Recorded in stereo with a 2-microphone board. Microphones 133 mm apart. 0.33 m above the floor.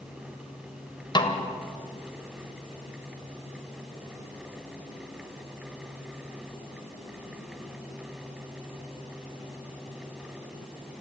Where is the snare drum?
35° left (ahead or behind), 1.7 m.